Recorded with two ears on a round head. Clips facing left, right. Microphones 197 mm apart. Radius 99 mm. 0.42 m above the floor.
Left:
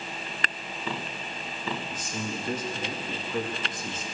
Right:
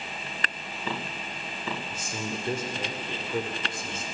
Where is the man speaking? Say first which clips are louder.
Left 1 dB; 25° right (ahead or behind), 0.9 m.